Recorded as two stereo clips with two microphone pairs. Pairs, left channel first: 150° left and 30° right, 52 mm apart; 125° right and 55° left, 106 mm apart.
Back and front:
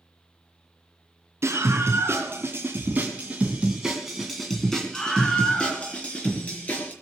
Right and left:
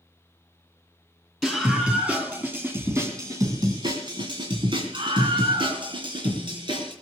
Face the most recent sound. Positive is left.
turn(degrees=95)